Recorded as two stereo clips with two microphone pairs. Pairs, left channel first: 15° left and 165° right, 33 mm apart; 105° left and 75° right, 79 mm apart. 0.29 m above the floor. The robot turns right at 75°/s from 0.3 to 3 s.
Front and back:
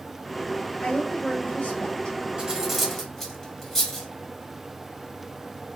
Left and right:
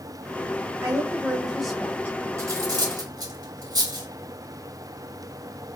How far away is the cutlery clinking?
About 1.0 m.